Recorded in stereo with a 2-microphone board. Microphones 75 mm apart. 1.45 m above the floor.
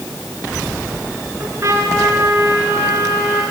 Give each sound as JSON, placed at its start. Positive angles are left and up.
{"t": 1.4, "sound": "a trumpet", "side_deg": -40, "distance_m": 8.0}